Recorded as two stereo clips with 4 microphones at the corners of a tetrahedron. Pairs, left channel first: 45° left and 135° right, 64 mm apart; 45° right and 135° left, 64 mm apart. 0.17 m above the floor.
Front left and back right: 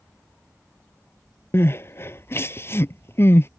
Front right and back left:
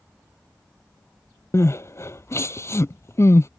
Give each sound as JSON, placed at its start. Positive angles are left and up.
{"t": 1.5, "sound": "crying", "azimuth_deg": -5}